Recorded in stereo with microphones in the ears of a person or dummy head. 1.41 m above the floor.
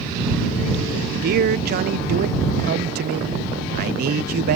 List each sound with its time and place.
1.2 s a man speaking: 50° right (ahead or behind)